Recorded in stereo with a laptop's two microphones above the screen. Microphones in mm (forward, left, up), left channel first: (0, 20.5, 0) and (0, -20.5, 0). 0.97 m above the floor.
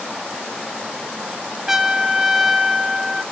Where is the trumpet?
10° right (ahead or behind), 0.6 m.